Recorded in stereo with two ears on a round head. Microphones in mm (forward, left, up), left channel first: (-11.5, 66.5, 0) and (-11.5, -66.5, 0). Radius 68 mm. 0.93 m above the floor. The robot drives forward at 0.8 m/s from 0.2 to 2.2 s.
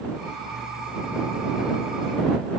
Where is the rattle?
No rattle in this recording.